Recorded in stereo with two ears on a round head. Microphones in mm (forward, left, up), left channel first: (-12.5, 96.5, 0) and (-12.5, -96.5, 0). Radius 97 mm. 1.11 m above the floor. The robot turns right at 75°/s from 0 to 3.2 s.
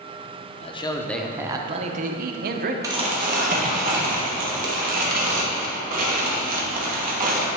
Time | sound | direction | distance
0.6 | a man speaking | 135° left | 0.5 m
2.8 | crumpling | 15° right (ahead or behind) | 1.2 m